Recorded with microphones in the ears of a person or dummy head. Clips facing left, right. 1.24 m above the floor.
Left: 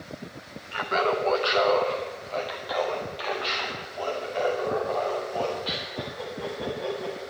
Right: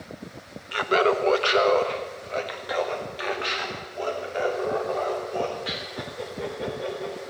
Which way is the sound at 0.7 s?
50° right (ahead or behind).